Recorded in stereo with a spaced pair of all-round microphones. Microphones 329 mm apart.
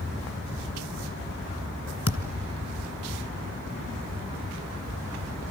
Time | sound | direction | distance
2.1 | a thud | 50° left (ahead or behind) | 1.8 m